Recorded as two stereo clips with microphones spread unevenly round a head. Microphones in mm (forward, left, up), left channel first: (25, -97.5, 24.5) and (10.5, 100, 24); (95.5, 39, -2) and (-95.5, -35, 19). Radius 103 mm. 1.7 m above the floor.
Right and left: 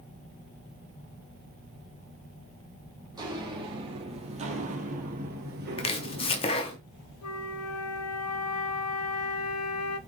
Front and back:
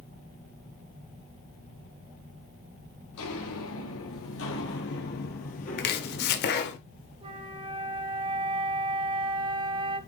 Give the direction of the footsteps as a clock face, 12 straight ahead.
11 o'clock.